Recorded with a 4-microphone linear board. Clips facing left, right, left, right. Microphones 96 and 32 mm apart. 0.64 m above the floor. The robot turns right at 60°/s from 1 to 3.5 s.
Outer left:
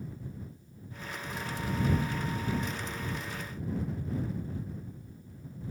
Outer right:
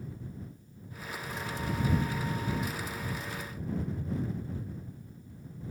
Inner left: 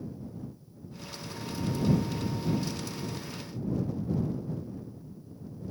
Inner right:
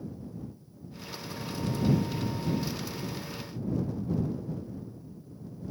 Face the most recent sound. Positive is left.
No sound to turn to.